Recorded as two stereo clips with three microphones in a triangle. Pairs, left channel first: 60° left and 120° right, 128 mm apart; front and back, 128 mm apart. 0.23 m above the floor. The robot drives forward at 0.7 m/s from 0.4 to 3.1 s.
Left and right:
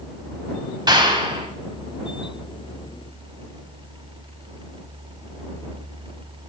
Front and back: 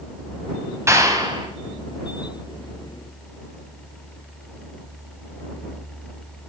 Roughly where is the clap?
Behind right.